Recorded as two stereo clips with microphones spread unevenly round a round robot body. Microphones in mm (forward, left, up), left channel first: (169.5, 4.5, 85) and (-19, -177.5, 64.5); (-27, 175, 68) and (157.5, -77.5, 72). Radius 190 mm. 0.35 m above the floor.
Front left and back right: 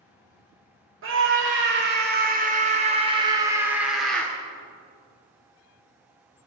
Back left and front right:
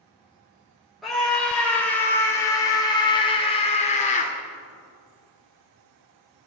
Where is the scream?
145° right, 2 m; by 4.3 s 130° left, 1.5 m.